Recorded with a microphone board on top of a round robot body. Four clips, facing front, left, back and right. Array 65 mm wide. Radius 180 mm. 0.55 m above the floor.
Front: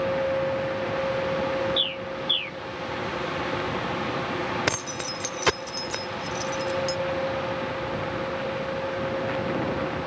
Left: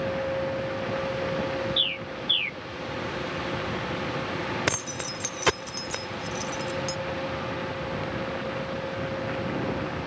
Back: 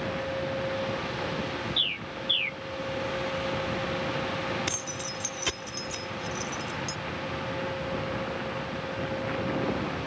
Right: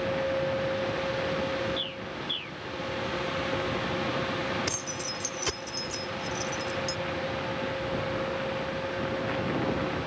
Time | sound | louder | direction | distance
1.8 | a bird | left 3 dB, front 5 dB | 135° left | ?
4.7 | keys jangling | left 4 dB, front 6 dB | 40° left | ?